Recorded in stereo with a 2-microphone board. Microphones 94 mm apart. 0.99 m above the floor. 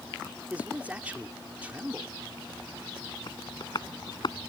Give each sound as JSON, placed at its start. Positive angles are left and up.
{"t": 0.5, "sound": "a man speaking", "side_deg": -15}
{"t": 3.3, "sound": "tapping", "side_deg": 50}